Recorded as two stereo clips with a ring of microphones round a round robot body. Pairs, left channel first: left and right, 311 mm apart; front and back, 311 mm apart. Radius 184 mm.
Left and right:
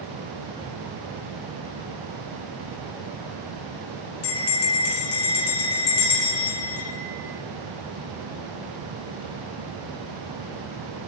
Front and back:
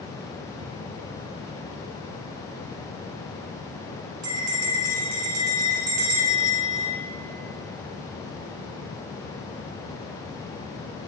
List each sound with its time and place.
4.2 s a bell: 135° left, 3.5 m